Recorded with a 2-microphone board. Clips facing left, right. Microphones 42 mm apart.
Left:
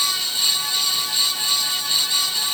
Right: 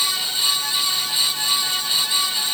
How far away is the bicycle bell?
No bicycle bell in this recording.